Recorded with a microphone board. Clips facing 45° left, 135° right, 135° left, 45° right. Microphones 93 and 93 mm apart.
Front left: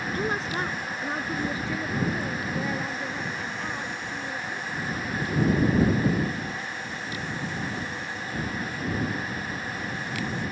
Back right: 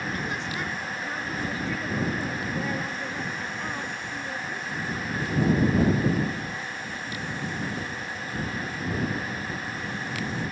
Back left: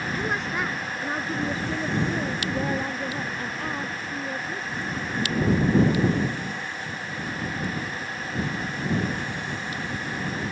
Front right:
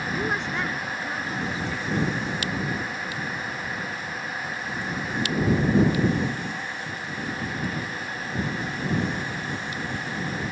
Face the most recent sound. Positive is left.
turn(degrees=140)